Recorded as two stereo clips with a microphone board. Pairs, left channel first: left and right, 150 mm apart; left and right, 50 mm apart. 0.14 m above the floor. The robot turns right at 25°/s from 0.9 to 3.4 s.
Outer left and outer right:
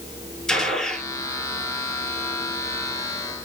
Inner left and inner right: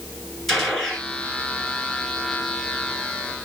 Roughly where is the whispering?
I don't hear whispering.